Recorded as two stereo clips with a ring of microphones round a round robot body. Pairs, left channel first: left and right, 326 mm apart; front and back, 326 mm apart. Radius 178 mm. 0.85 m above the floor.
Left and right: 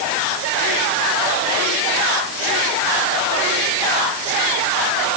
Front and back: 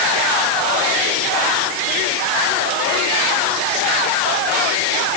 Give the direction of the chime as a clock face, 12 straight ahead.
No chime in this recording.